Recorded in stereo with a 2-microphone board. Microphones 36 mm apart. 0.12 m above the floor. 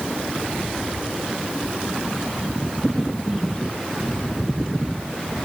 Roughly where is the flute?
I don't hear a flute.